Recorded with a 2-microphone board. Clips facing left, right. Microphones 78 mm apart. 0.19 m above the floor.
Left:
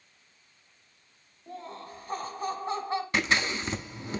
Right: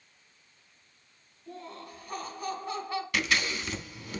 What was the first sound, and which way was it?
Laughter, 30° left (ahead or behind).